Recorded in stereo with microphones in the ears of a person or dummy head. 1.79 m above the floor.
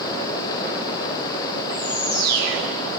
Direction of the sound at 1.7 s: 20° right (ahead or behind).